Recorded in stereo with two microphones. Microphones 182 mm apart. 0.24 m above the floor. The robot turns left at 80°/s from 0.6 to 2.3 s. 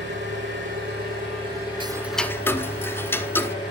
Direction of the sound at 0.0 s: 85° right.